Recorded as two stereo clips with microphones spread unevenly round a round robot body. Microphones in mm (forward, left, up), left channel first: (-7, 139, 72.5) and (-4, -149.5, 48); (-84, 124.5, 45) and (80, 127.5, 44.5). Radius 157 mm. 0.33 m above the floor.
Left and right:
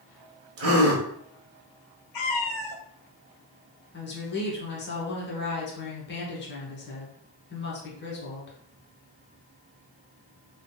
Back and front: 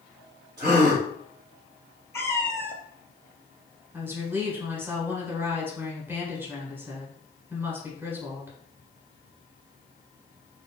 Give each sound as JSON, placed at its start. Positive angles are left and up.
{"t": 0.6, "sound": "a gasp", "azimuth_deg": -70, "distance_m": 1.1}
{"t": 2.1, "sound": "a cat meowing", "azimuth_deg": 105, "distance_m": 0.9}
{"t": 3.9, "sound": "a woman speaking", "azimuth_deg": 70, "distance_m": 1.4}